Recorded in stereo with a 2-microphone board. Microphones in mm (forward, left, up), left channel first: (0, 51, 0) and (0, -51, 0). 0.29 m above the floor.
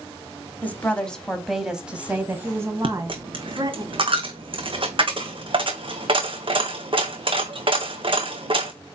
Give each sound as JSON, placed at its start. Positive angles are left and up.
{"t": 0.6, "sound": "a woman speaking", "side_deg": 15, "distance_m": 1.7}
{"t": 2.8, "sound": "a dropped coin", "side_deg": -55, "distance_m": 1.4}